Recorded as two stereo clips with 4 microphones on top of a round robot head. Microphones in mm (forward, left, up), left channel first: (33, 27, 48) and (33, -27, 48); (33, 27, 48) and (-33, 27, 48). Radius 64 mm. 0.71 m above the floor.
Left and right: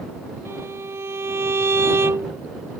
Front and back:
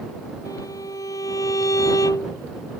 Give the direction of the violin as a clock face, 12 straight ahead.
2 o'clock.